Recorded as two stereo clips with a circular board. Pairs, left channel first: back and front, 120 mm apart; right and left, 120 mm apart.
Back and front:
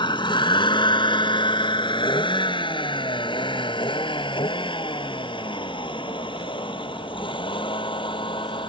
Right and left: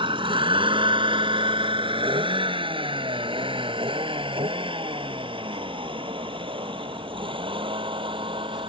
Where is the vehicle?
135° left.